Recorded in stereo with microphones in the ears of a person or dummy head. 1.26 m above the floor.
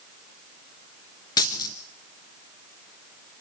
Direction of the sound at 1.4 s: 25° left (ahead or behind).